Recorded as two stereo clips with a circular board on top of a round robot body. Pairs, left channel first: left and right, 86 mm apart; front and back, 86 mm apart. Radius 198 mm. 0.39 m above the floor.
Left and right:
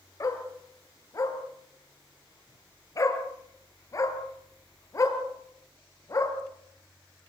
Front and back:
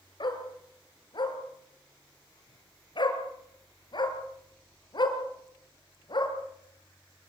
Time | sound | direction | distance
0.2 | a dog barking | 35° left | 3.5 m